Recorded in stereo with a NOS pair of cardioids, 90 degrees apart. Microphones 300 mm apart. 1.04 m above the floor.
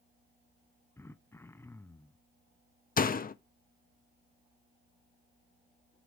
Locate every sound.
1.0 s throat clearing: 10° left, 0.5 m
3.0 s a door slam: 30° left, 0.9 m